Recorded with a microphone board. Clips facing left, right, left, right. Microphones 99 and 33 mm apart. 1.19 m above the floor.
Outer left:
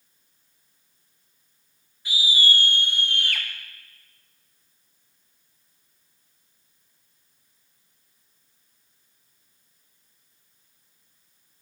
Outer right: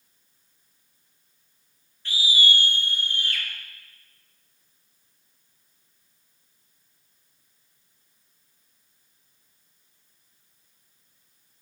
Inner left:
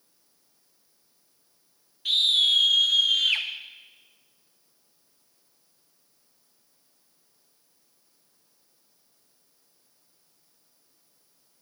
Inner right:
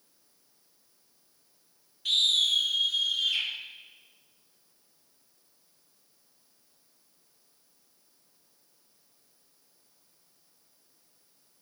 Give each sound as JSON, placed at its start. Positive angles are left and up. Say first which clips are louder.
{"t": 2.0, "sound": "a scream", "louder": "even, inner left 3 dB", "side_deg": 10, "distance_m": 1.3}